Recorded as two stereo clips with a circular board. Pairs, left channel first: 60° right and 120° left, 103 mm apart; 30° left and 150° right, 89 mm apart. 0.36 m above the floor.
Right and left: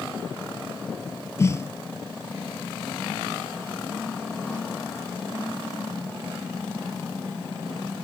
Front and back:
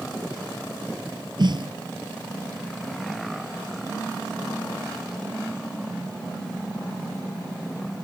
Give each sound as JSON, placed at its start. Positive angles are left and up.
{"t": 1.4, "sound": "a snare drum", "azimuth_deg": -120}